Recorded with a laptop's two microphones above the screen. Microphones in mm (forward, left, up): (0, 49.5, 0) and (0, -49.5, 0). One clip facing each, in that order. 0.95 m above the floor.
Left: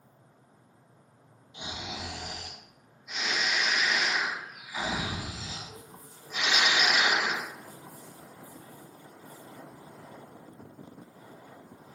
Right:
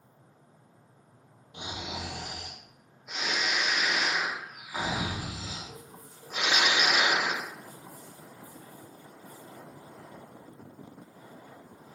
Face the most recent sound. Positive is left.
turn(degrees=-55)  # may be behind; listen again after turning